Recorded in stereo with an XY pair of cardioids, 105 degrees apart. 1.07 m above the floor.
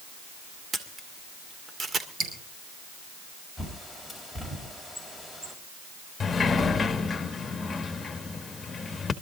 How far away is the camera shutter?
About 1.9 m.